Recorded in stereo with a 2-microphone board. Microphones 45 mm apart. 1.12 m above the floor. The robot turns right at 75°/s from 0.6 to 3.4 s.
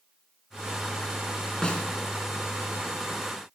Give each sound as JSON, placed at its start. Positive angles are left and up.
{"t": 1.6, "sound": "a snare drum", "side_deg": 15, "distance_m": 2.5}